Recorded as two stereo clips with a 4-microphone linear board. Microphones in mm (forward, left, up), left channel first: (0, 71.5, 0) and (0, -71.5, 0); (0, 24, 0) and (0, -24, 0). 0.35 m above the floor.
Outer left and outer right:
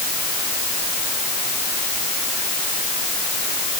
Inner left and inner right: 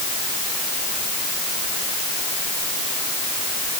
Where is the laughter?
No laughter in this recording.